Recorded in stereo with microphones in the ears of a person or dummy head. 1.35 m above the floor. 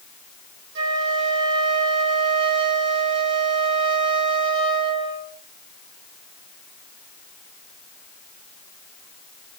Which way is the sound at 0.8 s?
70° right (ahead or behind).